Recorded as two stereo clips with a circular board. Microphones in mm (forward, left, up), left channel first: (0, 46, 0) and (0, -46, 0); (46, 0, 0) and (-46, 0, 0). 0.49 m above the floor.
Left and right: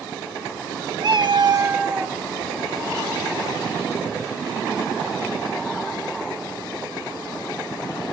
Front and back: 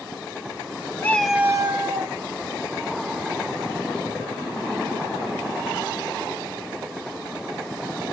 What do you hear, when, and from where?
1.0 s a cat meowing: 65° right, 0.9 m; by 2.2 s 170° right, 1.4 m